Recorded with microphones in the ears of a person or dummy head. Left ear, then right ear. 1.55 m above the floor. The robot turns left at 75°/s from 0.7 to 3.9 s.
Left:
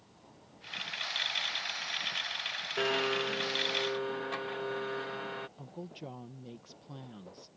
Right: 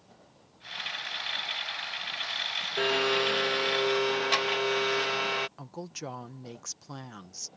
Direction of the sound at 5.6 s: 50° right (ahead or behind).